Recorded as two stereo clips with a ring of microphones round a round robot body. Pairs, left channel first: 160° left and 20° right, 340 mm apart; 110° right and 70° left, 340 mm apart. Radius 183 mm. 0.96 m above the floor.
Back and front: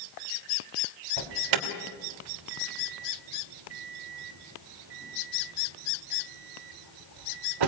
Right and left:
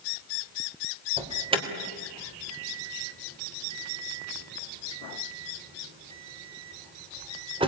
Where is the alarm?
10° right, 3 m.